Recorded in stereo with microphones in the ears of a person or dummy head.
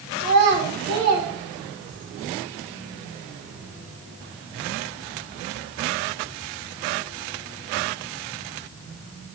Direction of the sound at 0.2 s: 55° right (ahead or behind).